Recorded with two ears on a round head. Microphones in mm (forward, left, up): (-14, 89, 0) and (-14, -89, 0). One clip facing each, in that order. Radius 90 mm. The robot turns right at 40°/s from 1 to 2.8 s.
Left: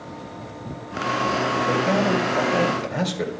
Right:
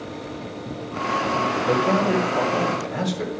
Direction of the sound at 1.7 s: 25° right.